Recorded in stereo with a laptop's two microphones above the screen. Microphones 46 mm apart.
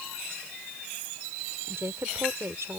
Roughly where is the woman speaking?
Right.